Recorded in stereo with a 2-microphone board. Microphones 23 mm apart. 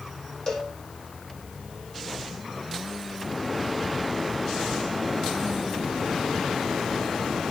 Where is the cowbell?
30° left (ahead or behind), 6 m.